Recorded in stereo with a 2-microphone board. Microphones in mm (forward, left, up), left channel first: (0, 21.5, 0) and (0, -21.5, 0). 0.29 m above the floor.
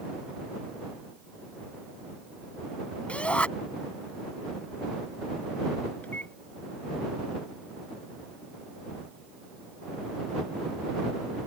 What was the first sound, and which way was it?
A shout, 30° left (ahead or behind).